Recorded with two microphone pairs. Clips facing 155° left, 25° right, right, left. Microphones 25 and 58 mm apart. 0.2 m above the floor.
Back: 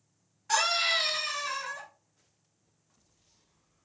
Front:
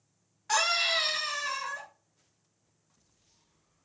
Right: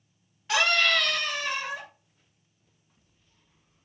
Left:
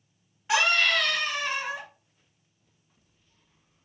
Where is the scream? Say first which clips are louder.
Even, even; 35° left, 1.6 m.